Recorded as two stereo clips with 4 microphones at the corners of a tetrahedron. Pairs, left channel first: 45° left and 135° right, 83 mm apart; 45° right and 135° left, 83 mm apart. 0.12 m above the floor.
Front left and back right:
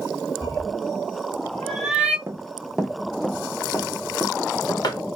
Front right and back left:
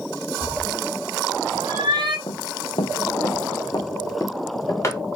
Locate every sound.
0.4 s a cat meowing: 85° left, 1.6 m; by 2.2 s 150° left, 1.2 m
2.3 s running footsteps: 75° right, 0.7 m; by 5.0 s 15° left, 1.2 m